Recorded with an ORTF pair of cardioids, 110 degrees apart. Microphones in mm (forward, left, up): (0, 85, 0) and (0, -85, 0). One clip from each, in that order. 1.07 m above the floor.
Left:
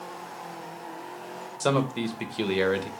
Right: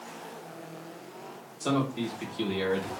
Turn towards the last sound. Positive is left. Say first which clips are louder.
# left 4 dB
turn(degrees=65)